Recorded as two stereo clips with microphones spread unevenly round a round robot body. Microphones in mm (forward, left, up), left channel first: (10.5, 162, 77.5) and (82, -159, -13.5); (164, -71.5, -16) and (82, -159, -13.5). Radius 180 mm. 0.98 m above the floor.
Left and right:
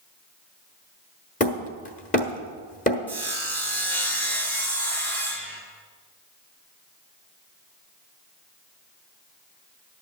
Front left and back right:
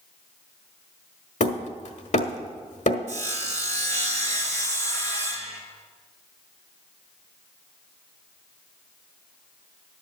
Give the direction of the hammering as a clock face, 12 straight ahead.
11 o'clock.